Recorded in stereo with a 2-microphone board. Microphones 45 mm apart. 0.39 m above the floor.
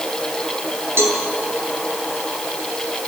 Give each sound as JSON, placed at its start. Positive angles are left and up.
{"t": 1.0, "sound": "a cowbell", "side_deg": -70, "distance_m": 3.0}